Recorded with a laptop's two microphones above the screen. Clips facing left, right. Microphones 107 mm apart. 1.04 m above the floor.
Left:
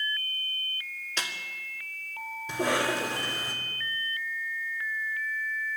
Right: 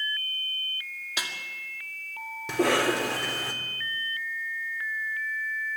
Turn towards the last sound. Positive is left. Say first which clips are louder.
# right 4 dB
turn(degrees=-80)